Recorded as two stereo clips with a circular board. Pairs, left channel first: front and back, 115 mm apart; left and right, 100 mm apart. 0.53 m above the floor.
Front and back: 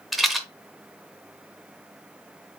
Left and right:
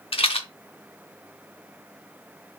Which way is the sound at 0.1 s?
90° left.